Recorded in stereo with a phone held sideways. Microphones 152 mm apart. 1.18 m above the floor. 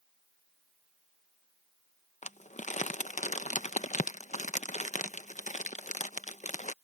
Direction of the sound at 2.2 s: 50° left (ahead or behind).